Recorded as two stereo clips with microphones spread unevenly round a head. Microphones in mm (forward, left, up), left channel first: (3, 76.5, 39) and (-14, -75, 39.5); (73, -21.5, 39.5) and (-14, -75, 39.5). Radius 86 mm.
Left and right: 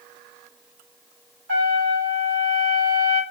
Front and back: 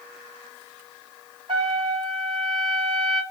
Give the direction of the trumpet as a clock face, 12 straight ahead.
4 o'clock.